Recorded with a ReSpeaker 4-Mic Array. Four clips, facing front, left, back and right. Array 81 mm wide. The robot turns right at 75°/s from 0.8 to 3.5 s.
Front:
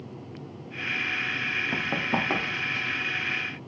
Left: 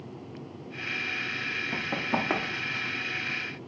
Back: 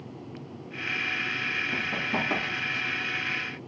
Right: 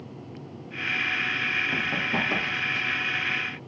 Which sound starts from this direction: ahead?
Running footsteps, at 1.7 s.